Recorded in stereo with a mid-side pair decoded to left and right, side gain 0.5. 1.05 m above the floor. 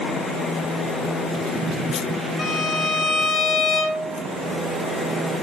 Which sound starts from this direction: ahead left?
A violin, at 2.4 s.